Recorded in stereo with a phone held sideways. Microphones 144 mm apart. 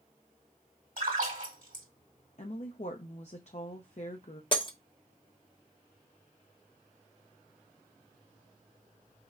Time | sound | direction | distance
1.0 | a splash | 70° right (ahead or behind) | 2 m
2.4 | a woman speaking | 50° left (ahead or behind) | 0.6 m
4.5 | breaking glass | 35° left (ahead or behind) | 0.8 m